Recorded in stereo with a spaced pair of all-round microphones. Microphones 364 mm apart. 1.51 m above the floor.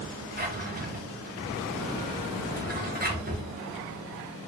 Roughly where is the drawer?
Right.